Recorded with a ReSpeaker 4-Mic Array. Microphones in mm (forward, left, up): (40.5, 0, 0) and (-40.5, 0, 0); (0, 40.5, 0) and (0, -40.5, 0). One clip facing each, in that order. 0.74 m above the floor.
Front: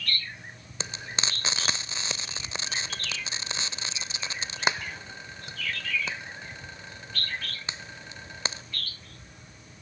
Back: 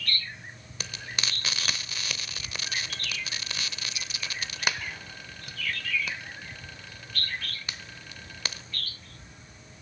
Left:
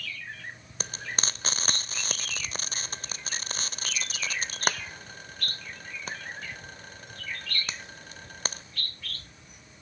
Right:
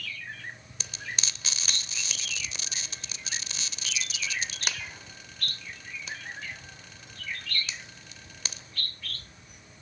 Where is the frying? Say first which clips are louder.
Front 2 dB, left 4 dB; 60° left, 0.6 m.